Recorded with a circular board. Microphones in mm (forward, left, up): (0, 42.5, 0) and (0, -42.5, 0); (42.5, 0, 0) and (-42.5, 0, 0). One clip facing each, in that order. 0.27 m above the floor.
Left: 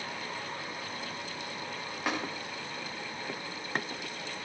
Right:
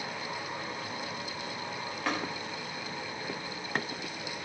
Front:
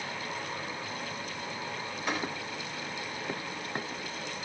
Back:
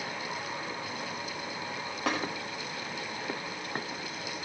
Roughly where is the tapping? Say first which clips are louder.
Even, back 3 dB; behind.